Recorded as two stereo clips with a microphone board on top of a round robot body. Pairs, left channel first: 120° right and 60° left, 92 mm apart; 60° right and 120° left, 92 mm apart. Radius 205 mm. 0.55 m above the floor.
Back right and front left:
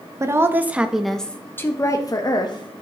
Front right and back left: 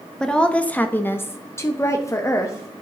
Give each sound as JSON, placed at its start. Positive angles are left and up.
{"t": 0.2, "sound": "a woman speaking", "azimuth_deg": 20, "distance_m": 1.1}